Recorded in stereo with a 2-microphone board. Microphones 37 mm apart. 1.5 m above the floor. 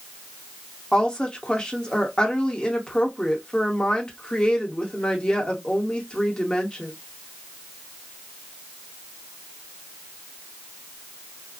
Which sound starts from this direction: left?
A woman speaking, at 0.9 s.